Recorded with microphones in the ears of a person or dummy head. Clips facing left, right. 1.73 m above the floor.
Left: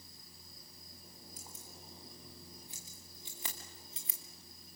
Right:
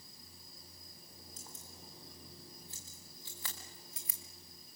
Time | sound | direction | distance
1.4 | keys jangling | 10° left (ahead or behind) | 3.5 m